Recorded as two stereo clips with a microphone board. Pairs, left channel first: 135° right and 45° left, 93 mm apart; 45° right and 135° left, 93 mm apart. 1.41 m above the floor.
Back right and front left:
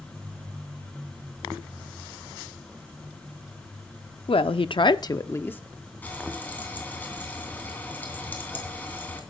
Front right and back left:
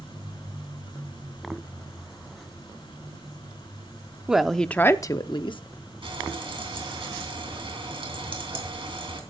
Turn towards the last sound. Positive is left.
turn(degrees=155)